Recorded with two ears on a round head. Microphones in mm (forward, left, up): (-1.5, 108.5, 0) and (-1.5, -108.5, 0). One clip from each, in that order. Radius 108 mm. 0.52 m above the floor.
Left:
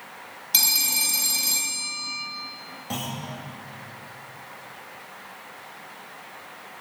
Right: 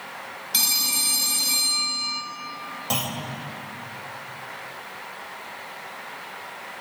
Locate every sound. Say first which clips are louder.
0.5 s a phone ringing: even; 15° left (ahead or behind), 2 m
2.9 s a clunk: right 4 dB; 45° right (ahead or behind), 2 m